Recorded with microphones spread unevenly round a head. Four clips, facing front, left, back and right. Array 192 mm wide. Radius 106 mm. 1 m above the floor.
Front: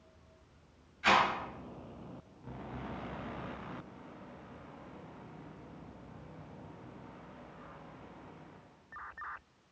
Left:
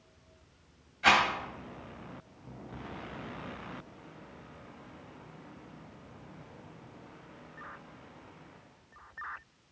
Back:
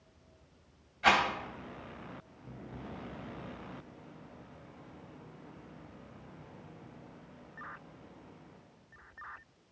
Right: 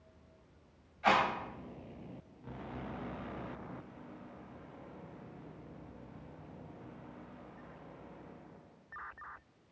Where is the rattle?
145° left, 3.5 m.